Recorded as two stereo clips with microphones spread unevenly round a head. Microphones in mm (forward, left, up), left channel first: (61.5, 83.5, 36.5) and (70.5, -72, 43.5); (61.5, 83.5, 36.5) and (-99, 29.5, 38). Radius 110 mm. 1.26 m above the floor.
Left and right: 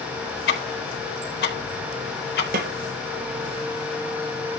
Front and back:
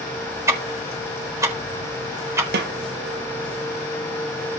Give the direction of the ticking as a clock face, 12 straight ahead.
8 o'clock.